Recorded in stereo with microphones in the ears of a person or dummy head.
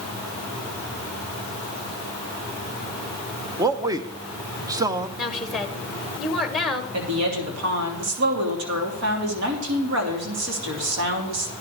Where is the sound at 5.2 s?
Centre (ahead or behind), 1.6 m.